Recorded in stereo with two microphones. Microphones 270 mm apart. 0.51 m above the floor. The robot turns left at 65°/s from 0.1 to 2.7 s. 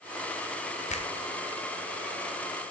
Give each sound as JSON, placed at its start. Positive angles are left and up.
{"t": 0.9, "sound": "a finger snap", "side_deg": 25, "distance_m": 0.7}